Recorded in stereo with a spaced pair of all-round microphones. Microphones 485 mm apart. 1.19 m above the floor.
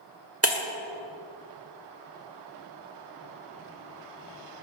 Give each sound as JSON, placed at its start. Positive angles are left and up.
{"t": 0.4, "sound": "breaking glass", "side_deg": -30, "distance_m": 1.4}